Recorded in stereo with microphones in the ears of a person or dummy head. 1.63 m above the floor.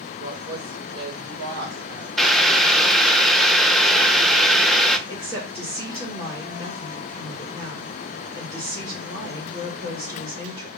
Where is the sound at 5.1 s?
20° right (ahead or behind), 2.5 m.